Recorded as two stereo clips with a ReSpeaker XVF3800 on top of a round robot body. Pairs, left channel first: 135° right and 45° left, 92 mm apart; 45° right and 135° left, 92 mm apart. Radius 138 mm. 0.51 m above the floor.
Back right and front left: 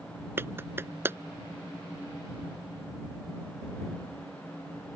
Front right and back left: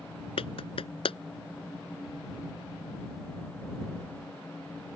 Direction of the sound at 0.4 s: 20° right.